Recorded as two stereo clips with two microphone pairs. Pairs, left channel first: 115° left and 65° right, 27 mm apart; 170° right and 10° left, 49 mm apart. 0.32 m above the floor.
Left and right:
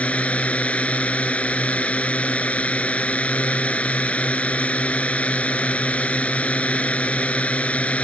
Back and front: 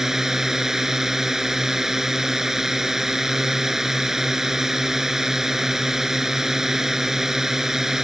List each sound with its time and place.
0.0 s a drone: 90° left